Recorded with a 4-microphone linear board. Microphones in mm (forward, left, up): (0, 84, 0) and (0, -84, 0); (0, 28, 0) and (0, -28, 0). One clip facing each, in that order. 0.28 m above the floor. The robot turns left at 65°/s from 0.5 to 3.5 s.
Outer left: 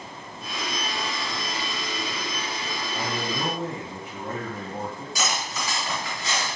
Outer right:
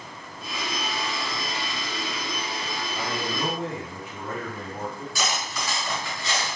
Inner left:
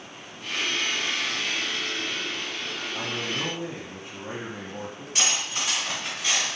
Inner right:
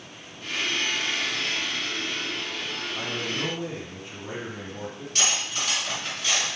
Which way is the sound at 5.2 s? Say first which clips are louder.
Outer left 1 dB, even; 20° left (ahead or behind).